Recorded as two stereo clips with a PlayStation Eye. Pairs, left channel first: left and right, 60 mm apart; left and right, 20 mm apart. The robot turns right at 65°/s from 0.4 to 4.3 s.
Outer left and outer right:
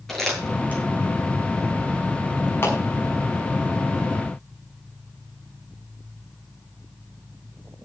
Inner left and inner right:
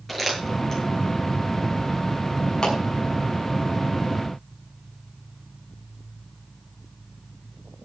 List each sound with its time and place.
0.1 s crumpling: 5° left (ahead or behind), 7 m; by 0.8 s 35° left (ahead or behind), 7 m
2.6 s a clap: 35° left (ahead or behind), 6 m; by 2.8 s 25° left (ahead or behind), 6 m